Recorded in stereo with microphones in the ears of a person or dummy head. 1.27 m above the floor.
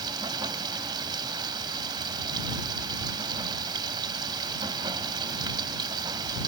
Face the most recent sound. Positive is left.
turn(degrees=-25)  # may be behind; listen again after turning